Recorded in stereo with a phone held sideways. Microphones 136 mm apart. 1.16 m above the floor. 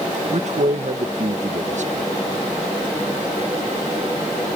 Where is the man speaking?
60° right (ahead or behind).